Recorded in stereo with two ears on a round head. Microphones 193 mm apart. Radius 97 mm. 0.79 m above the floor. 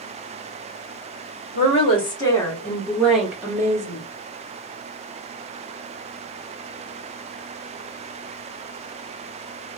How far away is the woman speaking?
About 1.6 m.